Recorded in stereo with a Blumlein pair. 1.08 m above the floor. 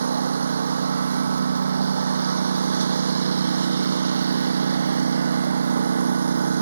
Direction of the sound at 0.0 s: 70° right.